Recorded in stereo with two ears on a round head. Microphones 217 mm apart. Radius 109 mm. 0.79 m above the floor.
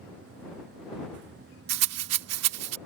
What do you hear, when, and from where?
1.7 s a rattle: 70° right (ahead or behind)